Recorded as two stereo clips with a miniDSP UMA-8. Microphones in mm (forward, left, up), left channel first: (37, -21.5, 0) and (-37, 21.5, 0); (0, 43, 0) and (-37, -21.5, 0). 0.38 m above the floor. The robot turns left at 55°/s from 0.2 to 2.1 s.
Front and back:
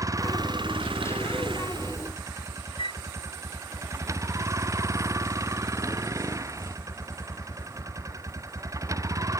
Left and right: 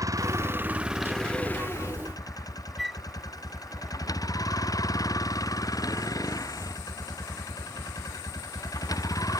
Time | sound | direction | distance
0.0 | a vehicle | 160° right | ?
2.8 | a flute | 30° right | ?